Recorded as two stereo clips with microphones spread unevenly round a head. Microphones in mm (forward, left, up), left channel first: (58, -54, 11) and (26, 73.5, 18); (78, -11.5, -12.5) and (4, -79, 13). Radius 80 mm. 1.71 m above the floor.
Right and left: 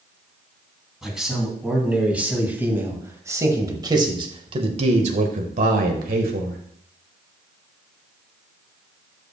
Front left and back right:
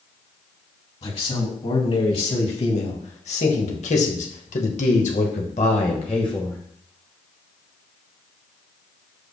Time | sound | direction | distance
1.0 | a man speaking | 20° left | 2.5 m